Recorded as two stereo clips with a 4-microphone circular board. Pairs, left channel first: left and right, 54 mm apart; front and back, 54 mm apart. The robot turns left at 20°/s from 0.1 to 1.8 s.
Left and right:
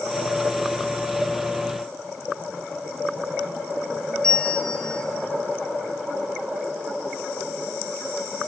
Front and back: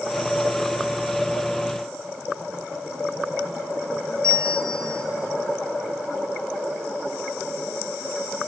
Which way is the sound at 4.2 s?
165° left.